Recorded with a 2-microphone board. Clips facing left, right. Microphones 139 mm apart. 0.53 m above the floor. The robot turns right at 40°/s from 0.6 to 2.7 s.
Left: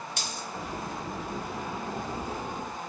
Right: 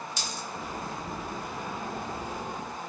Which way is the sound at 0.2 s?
65° left (ahead or behind).